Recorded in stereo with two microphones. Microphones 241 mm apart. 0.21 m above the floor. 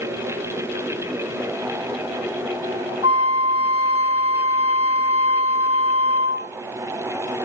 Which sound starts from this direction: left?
A flute, at 3.0 s.